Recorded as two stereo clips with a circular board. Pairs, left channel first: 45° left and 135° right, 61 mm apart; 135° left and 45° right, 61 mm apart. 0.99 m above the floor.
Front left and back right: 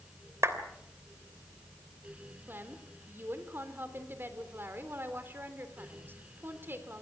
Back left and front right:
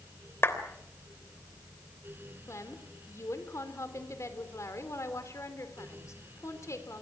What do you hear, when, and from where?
0.4 s a clap: 175° right, 3 m
2.5 s a woman speaking: 170° left, 3.5 m